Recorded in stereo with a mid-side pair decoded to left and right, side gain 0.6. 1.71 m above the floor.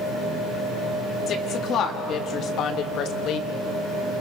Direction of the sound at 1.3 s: 50° left.